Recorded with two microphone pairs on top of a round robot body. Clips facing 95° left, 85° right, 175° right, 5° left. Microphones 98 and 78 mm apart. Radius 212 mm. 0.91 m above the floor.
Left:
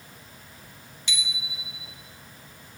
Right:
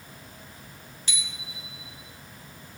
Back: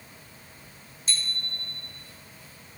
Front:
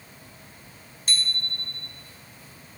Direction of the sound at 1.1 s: 30° right.